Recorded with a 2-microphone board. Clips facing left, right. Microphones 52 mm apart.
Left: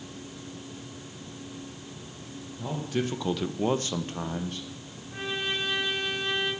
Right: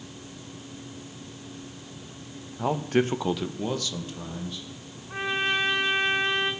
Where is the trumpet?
45° right (ahead or behind), 3.5 m.